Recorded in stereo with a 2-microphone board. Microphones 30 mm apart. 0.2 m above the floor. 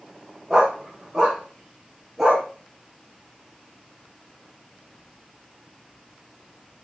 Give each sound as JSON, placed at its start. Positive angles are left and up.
{"t": 0.5, "sound": "a dog barking", "side_deg": -20, "distance_m": 5.0}